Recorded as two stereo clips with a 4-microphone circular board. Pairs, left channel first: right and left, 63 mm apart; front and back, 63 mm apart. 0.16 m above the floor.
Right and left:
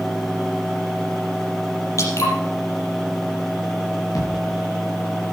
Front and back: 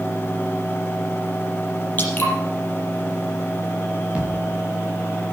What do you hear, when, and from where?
2.0 s dripping: 60° right, 5.5 m
4.2 s a thud: 110° right, 6.5 m